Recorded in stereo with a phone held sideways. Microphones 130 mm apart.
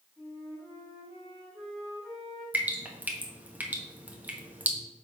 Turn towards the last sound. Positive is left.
turn(degrees=-10)  # may be behind; listen again after turning